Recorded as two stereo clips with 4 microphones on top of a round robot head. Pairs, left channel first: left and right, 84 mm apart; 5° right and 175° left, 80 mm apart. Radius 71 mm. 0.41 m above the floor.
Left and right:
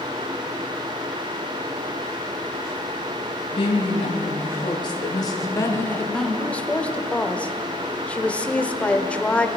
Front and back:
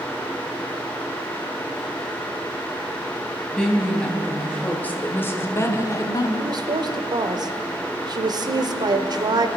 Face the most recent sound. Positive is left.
turn(degrees=160)